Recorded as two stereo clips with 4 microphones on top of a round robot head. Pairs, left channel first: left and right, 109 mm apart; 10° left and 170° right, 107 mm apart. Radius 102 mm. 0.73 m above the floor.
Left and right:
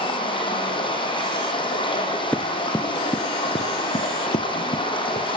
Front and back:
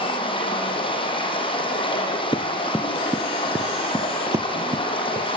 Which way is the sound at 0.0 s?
45° left.